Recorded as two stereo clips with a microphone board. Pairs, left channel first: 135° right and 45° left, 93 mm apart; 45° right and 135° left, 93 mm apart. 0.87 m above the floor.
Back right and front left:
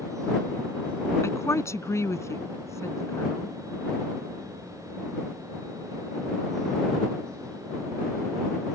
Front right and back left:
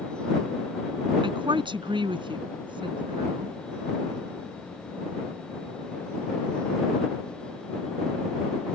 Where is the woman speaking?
165° left.